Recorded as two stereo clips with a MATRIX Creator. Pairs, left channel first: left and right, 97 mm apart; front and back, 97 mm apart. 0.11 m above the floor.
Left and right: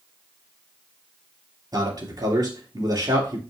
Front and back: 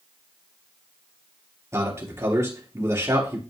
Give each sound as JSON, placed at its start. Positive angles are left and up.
{"t": 1.7, "sound": "a man speaking", "azimuth_deg": -125, "distance_m": 3.0}